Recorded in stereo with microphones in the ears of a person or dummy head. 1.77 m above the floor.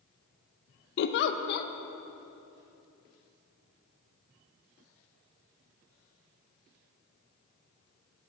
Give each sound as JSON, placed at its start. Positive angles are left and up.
{"t": 1.0, "sound": "a giggle", "side_deg": 60, "distance_m": 0.6}